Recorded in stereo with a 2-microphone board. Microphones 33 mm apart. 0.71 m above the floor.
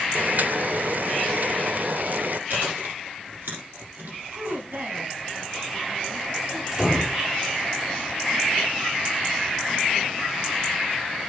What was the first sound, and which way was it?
Boiling, 60° right (ahead or behind).